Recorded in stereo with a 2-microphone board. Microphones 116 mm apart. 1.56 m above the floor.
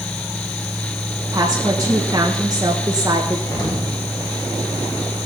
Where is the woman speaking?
35° right (ahead or behind), 1.7 m.